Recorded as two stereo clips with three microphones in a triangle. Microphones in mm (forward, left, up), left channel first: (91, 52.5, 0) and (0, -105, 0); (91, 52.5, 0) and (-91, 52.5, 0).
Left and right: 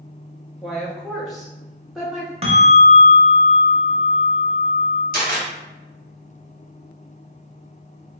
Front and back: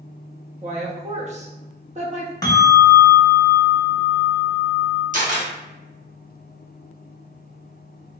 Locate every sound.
0.6 s a woman speaking: 150° left, 0.7 m
2.4 s a bell: 65° right, 0.8 m
5.1 s a camera shutter: 145° right, 1.1 m